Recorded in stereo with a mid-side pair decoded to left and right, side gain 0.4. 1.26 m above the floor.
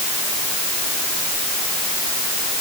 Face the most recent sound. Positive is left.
No sound to turn to.